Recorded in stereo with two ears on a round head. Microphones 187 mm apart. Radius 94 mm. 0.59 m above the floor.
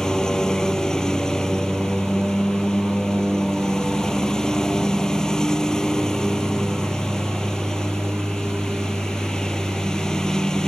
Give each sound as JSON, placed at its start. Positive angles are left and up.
{"t": 0.0, "sound": "a lawn mower", "side_deg": 5}